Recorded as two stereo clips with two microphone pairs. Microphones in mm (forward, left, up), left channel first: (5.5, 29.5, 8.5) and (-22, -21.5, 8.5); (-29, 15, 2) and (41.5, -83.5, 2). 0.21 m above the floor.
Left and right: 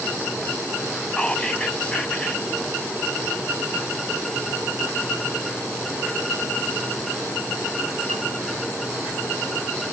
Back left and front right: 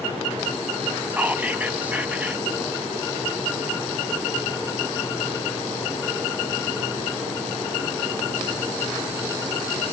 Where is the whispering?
5° left, 1.2 m.